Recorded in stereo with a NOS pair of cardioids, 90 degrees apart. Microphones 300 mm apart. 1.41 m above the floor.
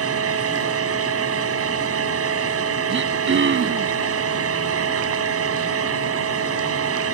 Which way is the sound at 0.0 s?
50° right.